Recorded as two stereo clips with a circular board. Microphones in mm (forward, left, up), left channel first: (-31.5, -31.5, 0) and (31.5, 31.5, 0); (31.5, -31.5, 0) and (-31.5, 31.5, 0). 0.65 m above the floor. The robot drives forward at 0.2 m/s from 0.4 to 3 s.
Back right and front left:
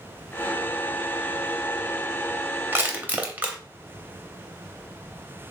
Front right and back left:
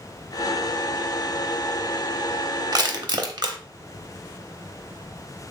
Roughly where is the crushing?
Left.